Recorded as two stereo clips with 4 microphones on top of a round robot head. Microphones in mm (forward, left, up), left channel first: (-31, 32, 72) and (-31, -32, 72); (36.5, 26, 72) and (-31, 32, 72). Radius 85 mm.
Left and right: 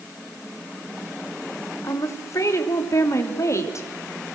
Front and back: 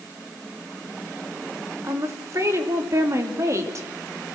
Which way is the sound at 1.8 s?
130° left.